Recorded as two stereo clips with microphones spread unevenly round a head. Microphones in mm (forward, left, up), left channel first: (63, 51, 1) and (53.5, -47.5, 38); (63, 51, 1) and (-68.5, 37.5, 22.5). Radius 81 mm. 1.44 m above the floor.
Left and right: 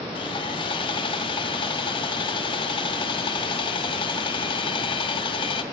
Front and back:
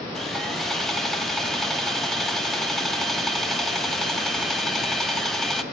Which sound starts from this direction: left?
Sawing, at 0.1 s.